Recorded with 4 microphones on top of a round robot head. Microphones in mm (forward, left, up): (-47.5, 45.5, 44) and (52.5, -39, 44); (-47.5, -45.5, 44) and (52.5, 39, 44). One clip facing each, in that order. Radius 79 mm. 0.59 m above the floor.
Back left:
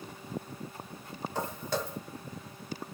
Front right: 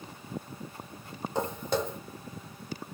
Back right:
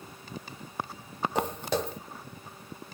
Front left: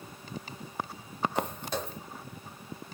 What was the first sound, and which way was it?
Footsteps, 110° right.